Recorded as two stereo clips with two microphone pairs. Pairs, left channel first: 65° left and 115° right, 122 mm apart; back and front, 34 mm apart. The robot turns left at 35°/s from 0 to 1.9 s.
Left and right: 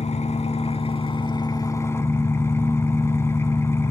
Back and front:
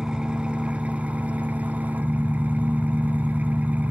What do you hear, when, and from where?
0.0 s an engine running: 65° left, 0.8 m; by 3.9 s straight ahead, 0.8 m